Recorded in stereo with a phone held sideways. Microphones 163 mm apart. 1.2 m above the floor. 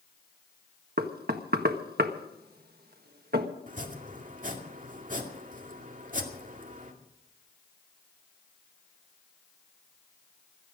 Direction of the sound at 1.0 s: 75° right (ahead or behind).